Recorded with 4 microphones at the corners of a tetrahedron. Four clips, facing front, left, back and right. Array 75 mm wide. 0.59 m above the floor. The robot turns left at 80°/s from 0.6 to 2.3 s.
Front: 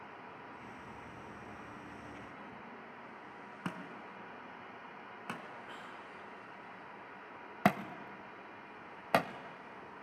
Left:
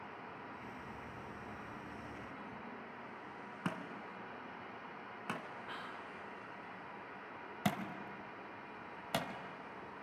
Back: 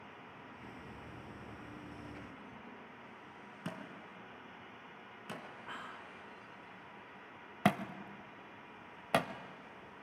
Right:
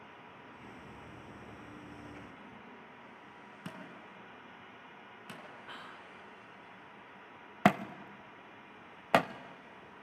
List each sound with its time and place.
3.6 s a thud: 45° left, 2 m
5.7 s whispering: 170° left, 0.6 m
7.7 s a thud: 80° right, 0.6 m